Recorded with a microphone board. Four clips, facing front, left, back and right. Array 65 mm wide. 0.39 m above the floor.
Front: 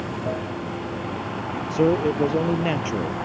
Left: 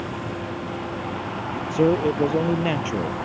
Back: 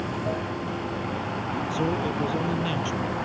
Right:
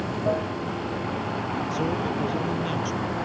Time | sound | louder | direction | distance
0.0 | running water | right 4 dB, front 1 dB | 75° right | ?
1.7 | a man speaking | left 10 dB, front 9 dB | 45° left | ?